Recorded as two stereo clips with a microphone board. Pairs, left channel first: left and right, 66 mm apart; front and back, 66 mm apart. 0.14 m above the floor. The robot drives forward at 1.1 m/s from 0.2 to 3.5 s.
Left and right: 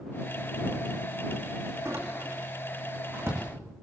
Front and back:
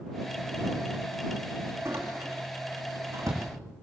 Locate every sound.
1.9 s a door slam: 130° right, 6.5 m; by 3.4 s 140° right, 8 m